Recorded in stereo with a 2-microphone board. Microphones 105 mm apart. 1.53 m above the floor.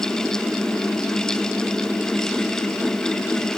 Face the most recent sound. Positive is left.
No sound to turn to.